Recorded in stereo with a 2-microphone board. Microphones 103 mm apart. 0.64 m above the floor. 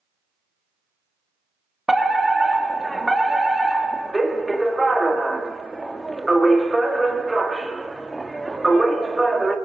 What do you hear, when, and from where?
1.9 s a fire alarm: centre (ahead or behind), 1.8 m